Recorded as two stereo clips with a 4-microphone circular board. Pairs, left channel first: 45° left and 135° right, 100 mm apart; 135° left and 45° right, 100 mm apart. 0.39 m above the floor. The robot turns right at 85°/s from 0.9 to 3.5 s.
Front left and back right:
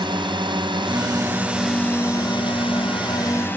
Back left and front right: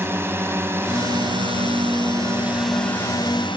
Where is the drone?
110° right; by 3.6 s 115° left.